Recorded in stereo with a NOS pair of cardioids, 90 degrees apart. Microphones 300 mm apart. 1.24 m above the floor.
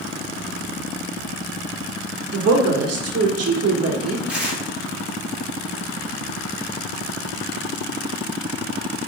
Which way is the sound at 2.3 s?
55° right.